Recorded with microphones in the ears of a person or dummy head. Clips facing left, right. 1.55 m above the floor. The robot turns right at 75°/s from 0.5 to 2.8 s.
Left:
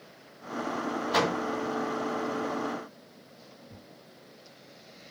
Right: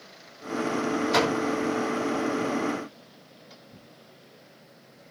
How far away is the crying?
No crying in this recording.